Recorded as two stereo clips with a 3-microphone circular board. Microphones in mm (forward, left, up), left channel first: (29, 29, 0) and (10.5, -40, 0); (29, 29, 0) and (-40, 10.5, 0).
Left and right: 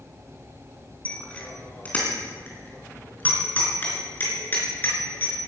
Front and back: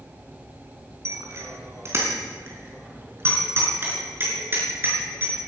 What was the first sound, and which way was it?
A bicycle bell, 145° left.